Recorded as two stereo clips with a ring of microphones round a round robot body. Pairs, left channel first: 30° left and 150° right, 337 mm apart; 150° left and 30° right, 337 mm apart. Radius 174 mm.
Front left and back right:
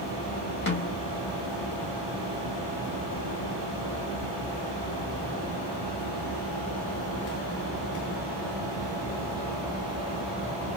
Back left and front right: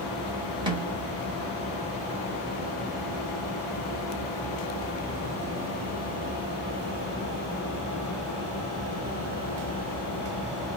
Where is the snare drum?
35° left, 1.4 m.